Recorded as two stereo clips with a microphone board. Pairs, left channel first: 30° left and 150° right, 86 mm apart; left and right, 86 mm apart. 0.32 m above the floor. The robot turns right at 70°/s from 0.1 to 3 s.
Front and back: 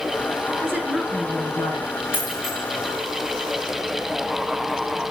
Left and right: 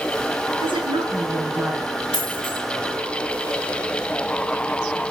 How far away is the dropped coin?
About 6.5 m.